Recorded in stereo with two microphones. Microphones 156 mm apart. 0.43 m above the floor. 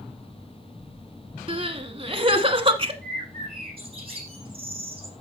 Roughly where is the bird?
Right.